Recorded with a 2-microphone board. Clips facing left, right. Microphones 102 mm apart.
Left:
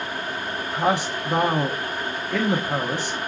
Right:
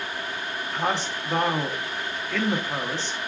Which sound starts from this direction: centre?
A man speaking, at 0.7 s.